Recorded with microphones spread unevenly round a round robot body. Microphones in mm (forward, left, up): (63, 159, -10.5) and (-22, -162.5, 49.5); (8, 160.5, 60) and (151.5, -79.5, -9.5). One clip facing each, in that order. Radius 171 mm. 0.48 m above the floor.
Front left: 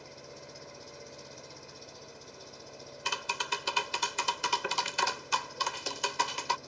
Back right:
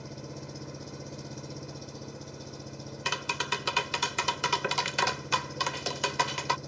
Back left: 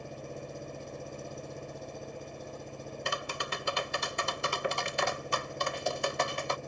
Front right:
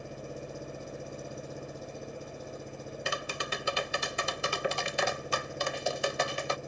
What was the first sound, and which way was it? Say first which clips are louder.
An engine running: back right 7 dB, front right 1 dB; 145° right.